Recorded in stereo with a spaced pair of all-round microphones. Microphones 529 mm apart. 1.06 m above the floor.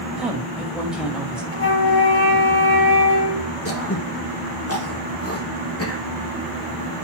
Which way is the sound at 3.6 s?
25° left (ahead or behind).